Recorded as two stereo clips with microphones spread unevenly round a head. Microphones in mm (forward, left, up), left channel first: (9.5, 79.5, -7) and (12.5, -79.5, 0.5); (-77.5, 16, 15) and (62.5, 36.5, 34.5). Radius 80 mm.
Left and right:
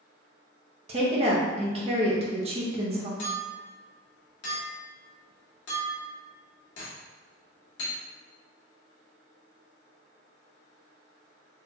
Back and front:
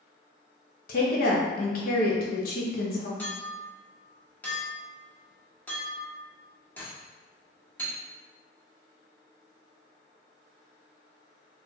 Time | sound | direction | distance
0.9 | a woman speaking | 145° right | 1.0 m
3.2 | a clink | 110° left | 1.4 m